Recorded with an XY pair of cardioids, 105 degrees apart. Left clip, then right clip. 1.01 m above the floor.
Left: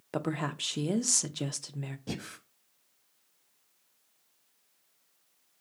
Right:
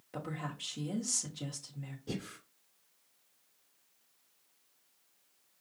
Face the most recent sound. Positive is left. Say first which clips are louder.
# left 1 dB
turn(degrees=60)